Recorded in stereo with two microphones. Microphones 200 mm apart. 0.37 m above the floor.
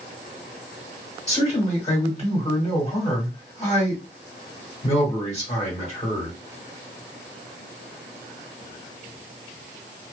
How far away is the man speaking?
About 1.6 m.